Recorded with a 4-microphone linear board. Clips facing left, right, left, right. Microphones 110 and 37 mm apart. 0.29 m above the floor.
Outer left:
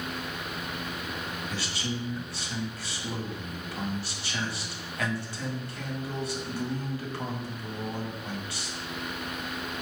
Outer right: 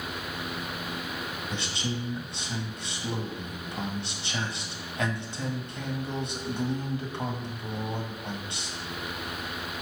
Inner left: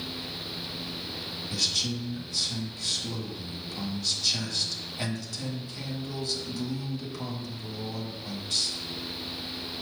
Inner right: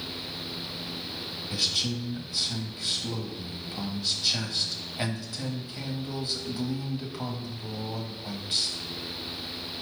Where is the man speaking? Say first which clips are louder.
Outer right 2 dB, inner right 1 dB; 20° right (ahead or behind), 1.9 m.